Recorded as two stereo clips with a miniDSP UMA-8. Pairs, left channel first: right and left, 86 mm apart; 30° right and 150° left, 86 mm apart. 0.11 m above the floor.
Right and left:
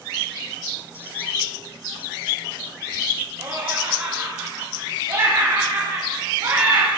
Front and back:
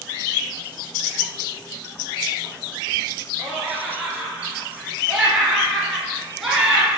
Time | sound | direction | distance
3.4 | laughter | 65° left | 1.4 m